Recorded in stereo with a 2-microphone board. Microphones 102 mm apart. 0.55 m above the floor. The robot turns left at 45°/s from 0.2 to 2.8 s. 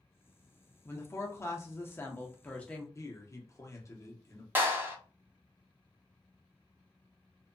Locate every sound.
0.8 s a woman speaking: 25° left (ahead or behind), 0.7 m; by 2.9 s 10° left (ahead or behind), 0.7 m
3.0 s a man speaking: 30° left (ahead or behind), 0.8 m
4.5 s a clap: 20° right (ahead or behind), 0.8 m